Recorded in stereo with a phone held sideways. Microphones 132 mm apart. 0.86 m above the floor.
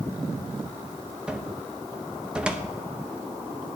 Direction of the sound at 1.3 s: 10° right (ahead or behind).